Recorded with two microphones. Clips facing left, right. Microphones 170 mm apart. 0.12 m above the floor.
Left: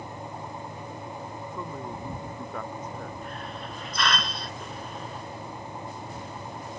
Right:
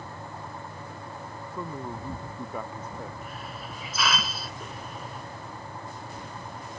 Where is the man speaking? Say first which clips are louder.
Right 3 dB; 10° right (ahead or behind).